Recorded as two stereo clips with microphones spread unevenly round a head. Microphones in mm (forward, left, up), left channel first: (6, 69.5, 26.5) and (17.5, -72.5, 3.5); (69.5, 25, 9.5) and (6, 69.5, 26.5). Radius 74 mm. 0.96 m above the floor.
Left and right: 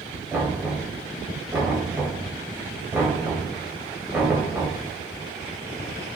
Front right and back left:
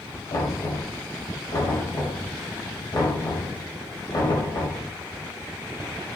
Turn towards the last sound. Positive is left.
turn(degrees=-5)